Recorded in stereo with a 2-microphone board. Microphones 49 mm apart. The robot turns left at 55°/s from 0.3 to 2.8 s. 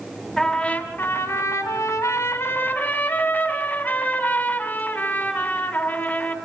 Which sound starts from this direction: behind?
A trumpet, at 0.4 s.